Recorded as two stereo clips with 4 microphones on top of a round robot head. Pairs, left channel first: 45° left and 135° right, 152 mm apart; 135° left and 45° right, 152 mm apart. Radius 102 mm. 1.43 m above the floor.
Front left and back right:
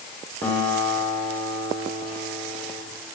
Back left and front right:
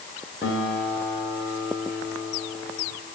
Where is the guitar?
120° left, 8 m.